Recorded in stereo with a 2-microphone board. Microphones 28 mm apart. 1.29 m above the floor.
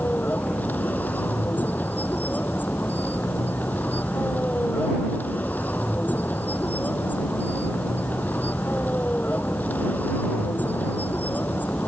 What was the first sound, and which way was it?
A vehicle, 80° left.